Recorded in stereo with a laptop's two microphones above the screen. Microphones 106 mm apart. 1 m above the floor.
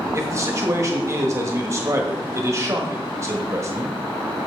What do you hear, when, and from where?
0.1 s a man speaking: 30° right (ahead or behind), 1.3 m